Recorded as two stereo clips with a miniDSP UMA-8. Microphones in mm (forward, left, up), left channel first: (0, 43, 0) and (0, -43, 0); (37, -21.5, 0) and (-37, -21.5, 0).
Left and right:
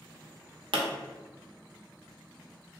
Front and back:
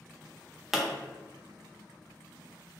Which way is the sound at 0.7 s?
95° right.